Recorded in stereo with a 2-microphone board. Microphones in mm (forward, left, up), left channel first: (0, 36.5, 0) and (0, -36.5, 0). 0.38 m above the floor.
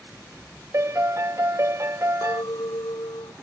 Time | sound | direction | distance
0.7 | a piano | 40° right (ahead or behind) | ?
2.2 | a clink | 75° left (ahead or behind) | ?